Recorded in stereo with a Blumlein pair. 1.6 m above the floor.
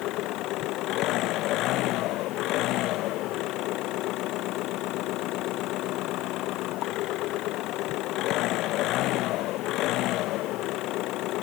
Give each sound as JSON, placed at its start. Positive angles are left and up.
{"t": 0.0, "sound": "an engine running", "azimuth_deg": 40}